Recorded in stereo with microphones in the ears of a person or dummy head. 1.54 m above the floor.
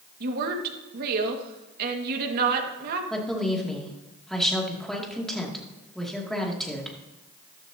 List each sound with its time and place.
0.2 s a woman speaking: 55° right (ahead or behind), 1.7 m
3.1 s a woman speaking: 5° left (ahead or behind), 2.5 m